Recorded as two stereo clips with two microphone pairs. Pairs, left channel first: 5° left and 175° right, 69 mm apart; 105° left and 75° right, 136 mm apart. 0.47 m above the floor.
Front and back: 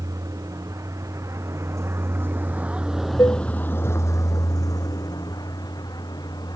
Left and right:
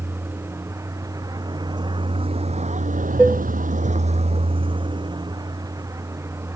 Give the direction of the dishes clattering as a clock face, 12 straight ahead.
12 o'clock.